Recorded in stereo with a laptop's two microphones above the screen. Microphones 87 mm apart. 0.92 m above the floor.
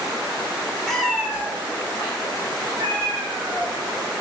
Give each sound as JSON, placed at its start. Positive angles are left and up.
{"t": 0.9, "sound": "a cat meowing", "side_deg": 5, "distance_m": 0.6}